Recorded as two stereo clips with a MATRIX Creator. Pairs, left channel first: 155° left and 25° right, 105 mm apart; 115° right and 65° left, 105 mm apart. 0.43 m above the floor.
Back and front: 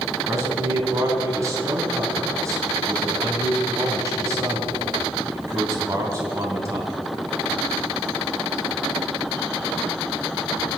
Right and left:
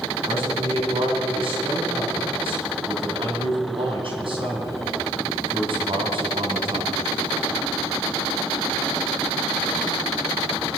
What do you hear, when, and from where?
0.3 s a man speaking: 40° left, 3.5 m